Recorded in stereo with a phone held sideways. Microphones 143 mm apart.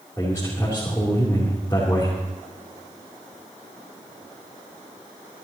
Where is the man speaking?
20° left (ahead or behind), 3.5 m.